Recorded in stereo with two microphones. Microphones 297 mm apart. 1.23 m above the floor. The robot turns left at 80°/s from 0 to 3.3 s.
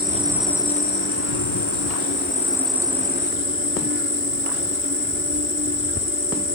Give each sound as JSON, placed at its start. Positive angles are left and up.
{"t": 0.0, "sound": "an insect", "azimuth_deg": -145}